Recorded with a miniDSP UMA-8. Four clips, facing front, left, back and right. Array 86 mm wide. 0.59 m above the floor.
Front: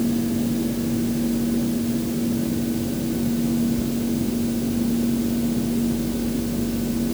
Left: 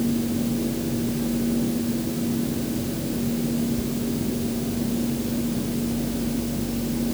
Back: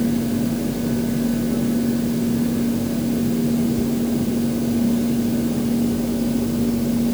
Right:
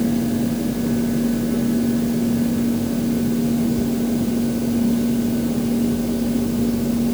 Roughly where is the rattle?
No rattle in this recording.